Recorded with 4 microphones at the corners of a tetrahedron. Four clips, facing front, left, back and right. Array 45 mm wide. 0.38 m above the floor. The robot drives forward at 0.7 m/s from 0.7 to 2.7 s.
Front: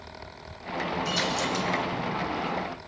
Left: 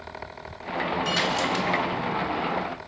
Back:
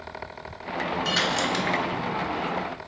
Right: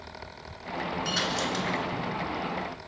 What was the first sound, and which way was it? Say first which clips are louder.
A dropped coin: left 3 dB, back 5 dB; 170° left.